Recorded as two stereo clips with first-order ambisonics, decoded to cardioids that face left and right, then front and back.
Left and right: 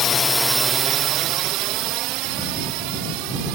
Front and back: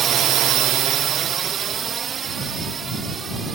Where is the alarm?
No alarm in this recording.